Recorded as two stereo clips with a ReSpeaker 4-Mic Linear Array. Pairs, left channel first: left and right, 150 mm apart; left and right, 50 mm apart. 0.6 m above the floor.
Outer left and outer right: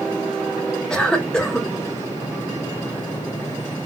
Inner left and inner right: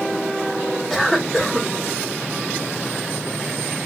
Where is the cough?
5° left (ahead or behind), 0.6 m.